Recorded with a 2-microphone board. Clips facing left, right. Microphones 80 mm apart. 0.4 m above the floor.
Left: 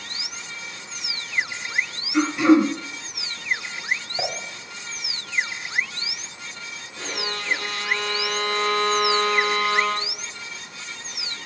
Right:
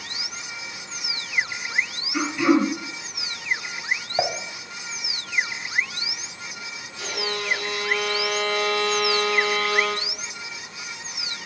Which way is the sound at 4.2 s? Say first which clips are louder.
Right 9 dB; 40° right (ahead or behind).